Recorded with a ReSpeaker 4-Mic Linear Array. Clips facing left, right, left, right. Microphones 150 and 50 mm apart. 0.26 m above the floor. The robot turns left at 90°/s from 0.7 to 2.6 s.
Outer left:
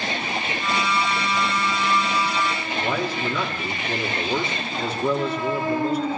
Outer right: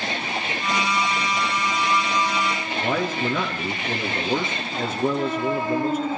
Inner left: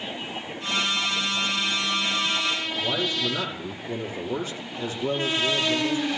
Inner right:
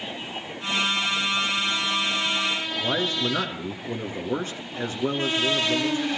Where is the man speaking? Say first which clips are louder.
Outer right 2 dB, inner right 2 dB; 50° right (ahead or behind), 3.5 m.